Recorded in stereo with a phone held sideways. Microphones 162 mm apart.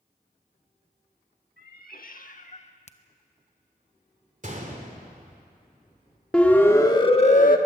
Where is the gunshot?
50° right (ahead or behind), 2.5 m.